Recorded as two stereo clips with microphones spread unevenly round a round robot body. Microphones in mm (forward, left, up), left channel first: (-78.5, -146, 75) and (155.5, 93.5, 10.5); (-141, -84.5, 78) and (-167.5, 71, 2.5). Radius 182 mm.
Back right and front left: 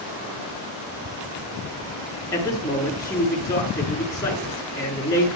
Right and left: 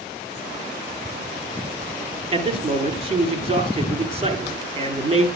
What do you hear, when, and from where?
2.3 s a man speaking: 145° left, 5.5 m